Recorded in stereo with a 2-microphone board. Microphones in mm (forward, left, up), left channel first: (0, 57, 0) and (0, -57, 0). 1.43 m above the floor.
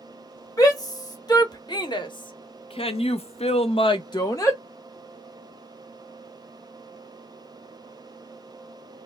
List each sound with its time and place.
0.6 s a shout: 30° left (ahead or behind), 1.9 m; by 4.6 s 25° left (ahead or behind), 0.8 m